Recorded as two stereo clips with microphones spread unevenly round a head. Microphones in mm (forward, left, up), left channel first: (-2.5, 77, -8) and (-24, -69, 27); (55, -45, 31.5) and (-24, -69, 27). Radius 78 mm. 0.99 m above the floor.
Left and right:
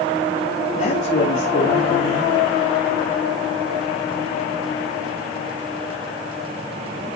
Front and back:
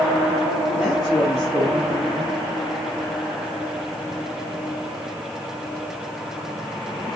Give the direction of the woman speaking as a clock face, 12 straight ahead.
8 o'clock.